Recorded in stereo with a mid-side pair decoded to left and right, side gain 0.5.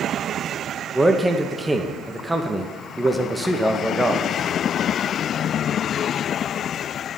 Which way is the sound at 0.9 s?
10° right.